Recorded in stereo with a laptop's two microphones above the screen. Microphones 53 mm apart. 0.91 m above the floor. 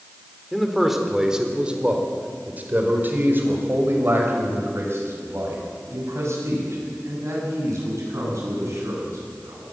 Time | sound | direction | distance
0.5 | a man speaking | centre (ahead or behind) | 3.5 m